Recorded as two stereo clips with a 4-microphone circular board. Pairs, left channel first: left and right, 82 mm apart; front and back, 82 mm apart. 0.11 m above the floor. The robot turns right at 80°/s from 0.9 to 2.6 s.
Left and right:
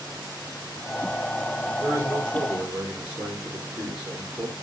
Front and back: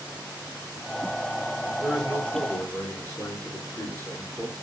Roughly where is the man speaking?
Right.